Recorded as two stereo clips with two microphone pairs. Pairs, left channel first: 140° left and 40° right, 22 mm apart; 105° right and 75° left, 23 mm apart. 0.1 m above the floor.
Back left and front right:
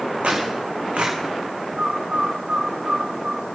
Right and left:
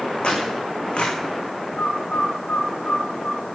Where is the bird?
95° right, 4.5 m.